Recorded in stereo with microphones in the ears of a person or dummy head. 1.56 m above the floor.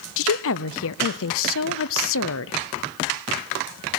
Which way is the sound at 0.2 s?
75° left (ahead or behind).